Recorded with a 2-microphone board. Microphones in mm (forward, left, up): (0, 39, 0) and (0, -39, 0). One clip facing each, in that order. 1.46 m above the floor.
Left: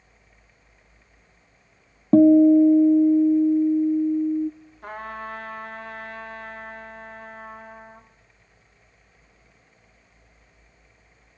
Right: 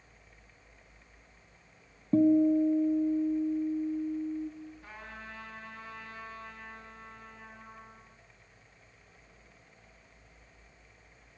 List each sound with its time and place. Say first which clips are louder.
2.1 s a guitar: left 10 dB; 65° left (ahead or behind), 0.6 m
4.8 s a trumpet: left 12 dB; 65° left (ahead or behind), 2.5 m